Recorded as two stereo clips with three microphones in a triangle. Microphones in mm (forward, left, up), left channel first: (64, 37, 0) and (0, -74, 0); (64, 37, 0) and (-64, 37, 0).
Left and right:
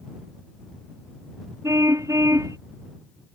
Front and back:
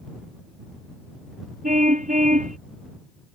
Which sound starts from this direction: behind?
A car horn, at 1.6 s.